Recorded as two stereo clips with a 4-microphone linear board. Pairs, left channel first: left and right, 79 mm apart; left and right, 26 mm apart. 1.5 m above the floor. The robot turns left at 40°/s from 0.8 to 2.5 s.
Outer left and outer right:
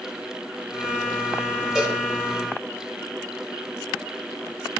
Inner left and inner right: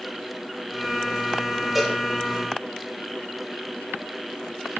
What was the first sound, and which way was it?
A cowbell, 10° right (ahead or behind).